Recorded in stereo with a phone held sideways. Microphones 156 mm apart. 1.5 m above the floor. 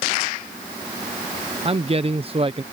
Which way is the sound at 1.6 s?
40° right (ahead or behind).